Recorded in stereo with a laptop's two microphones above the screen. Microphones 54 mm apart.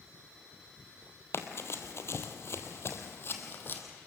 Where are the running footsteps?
50° left (ahead or behind), 1.7 m; by 3.8 s 40° left (ahead or behind), 2 m.